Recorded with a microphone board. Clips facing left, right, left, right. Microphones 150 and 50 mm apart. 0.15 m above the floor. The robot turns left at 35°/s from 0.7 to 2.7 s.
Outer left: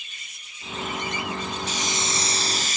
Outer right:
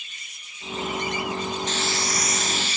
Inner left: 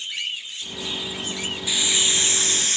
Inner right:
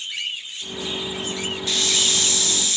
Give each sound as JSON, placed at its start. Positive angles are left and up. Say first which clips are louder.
{"t": 1.7, "sound": "a hiss", "louder": "outer right 2 dB, even", "azimuth_deg": 170, "distance_m": 0.6}